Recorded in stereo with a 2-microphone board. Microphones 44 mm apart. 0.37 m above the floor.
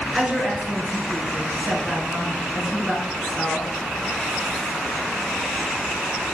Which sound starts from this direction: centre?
A woman speaking, at 0.1 s.